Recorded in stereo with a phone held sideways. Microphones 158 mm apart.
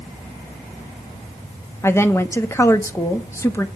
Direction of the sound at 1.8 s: 15° left (ahead or behind).